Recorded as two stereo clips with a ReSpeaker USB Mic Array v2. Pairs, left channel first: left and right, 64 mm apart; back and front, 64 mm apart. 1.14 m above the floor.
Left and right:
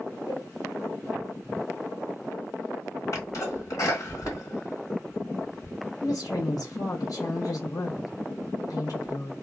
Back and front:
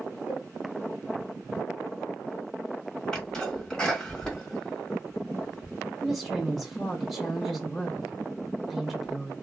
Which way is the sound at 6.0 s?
85° left.